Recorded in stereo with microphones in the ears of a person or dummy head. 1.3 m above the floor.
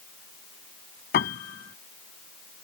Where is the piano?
45° left (ahead or behind).